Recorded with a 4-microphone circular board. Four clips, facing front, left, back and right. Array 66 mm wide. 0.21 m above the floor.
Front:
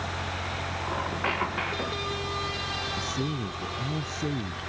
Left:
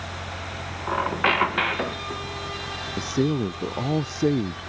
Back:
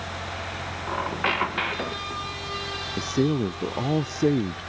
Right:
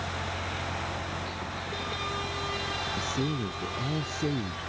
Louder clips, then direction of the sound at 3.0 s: Left 10 dB, back 12 dB; 140° left.